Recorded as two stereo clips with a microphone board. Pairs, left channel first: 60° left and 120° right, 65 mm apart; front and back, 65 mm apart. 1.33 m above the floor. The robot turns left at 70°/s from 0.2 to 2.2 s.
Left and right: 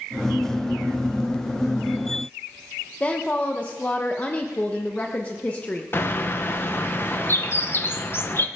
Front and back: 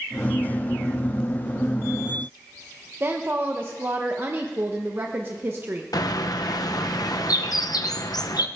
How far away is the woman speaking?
About 0.9 m.